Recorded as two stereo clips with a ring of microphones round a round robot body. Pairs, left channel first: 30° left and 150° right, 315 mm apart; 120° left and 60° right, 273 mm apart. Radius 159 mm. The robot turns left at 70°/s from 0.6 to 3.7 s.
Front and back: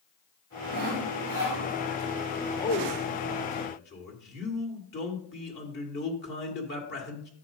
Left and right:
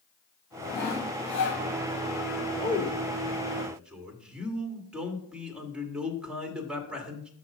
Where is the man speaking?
100° left, 1.6 m; by 7.3 s 25° left, 1.6 m.